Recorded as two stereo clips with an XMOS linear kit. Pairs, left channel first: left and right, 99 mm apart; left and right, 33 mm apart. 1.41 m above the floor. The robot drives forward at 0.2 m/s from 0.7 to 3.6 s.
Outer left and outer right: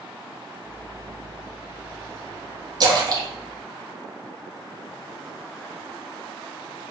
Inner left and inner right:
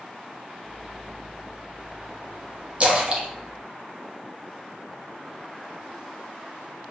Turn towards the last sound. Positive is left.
turn(degrees=-30)  # may be behind; listen again after turning